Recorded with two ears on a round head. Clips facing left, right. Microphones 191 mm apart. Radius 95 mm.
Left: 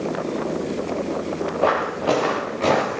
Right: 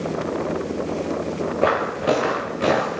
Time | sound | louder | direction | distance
1.6 | footsteps | even | 25° right (ahead or behind) | 4.5 m